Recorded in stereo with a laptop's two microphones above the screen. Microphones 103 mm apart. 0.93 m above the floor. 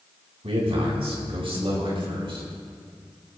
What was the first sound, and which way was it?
A man speaking, 75° right (ahead or behind).